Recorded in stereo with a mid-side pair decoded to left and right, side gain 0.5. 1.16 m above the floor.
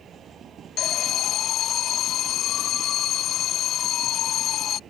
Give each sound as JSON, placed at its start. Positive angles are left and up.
{"t": 0.8, "sound": "an alarm", "azimuth_deg": 65}